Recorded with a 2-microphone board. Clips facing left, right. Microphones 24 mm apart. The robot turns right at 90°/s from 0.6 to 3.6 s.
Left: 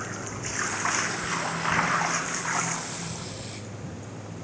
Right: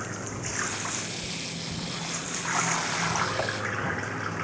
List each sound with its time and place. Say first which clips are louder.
0.0 s running water: even; straight ahead; by 4.5 s 90° right